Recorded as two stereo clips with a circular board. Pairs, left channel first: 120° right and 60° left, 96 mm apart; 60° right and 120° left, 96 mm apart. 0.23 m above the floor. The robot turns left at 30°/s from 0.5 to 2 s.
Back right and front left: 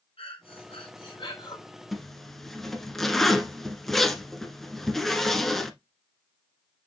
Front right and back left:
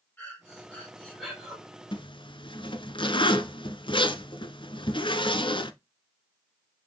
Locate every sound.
0.2 s breathing: 130° right, 3 m; by 1.6 s 160° right, 3 m
1.9 s a zipper: 30° right, 0.9 m; by 5.7 s 35° right, 0.9 m